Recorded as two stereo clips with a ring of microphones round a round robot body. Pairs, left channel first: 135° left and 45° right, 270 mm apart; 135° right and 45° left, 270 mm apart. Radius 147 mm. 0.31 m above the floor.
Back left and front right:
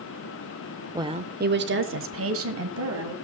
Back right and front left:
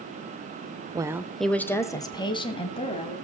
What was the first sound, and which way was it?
A woman speaking, 5° left.